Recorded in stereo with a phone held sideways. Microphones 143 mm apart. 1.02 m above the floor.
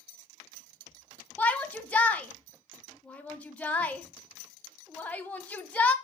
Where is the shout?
10° left (ahead or behind), 0.8 m.